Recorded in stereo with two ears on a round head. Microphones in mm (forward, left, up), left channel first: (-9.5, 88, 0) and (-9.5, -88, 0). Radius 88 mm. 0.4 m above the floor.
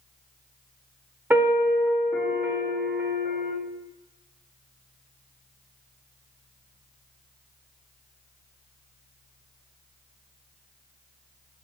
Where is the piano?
10° right (ahead or behind), 1.1 m.